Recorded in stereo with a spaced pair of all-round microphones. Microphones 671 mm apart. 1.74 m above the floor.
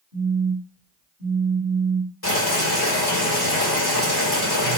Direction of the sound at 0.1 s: 25° right (ahead or behind).